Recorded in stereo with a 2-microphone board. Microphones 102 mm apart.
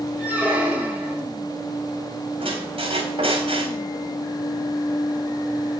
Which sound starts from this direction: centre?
A squeak, at 0.2 s.